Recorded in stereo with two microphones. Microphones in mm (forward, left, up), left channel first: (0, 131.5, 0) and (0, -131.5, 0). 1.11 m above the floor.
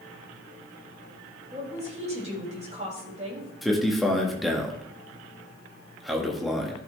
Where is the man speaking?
Centre (ahead or behind), 1.6 m.